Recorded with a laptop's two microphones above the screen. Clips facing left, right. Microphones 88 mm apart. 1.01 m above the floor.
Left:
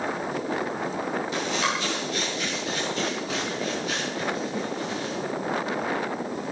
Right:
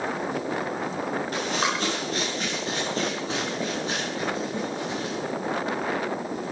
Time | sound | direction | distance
1.3 | running footsteps | 50° right (ahead or behind) | 7.5 m